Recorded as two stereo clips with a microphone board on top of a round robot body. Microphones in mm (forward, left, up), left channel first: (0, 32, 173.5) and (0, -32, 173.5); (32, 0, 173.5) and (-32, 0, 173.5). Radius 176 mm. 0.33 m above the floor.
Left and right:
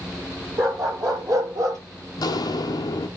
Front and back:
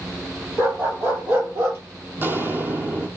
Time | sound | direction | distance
0.6 | a dog barking | 125° right | 5 m
2.2 | footsteps | 120° left | 0.8 m